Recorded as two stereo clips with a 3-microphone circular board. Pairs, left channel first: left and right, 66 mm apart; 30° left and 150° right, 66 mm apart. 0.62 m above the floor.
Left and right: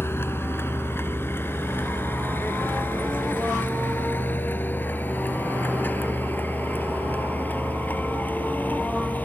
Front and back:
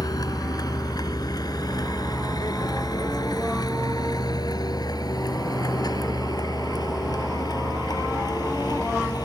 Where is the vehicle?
40° left; by 9.3 s 25° left.